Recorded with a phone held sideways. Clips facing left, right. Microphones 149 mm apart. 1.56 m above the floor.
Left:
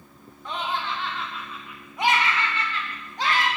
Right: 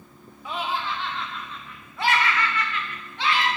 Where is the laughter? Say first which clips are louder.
Right 1 dB; 10° right (ahead or behind), 1.8 m; by 3.5 s 45° left (ahead or behind), 1.4 m.